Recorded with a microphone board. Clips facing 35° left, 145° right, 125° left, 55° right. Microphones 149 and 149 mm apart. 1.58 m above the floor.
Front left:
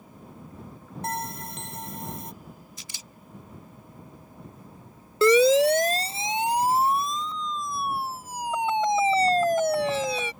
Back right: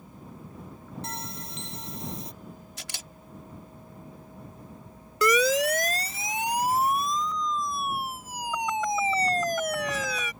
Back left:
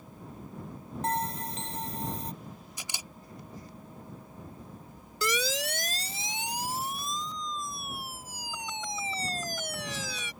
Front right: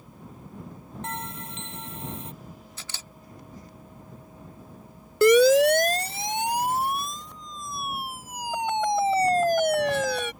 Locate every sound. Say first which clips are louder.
1.0 s a bell: front left 10 dB, back left 6 dB; 70° left
2.8 s a camera shutter: back right 4 dB, back left 1 dB; 160° right
5.2 s a siren: front left 6 dB, front right 17 dB; 25° right